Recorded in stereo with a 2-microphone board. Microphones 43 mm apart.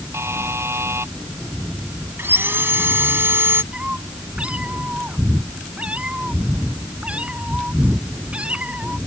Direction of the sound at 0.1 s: 80° right.